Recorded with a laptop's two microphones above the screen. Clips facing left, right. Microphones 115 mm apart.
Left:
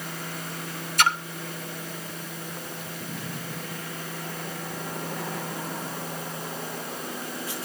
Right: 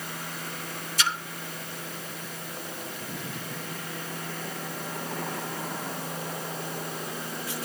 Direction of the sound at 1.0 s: 55° left (ahead or behind).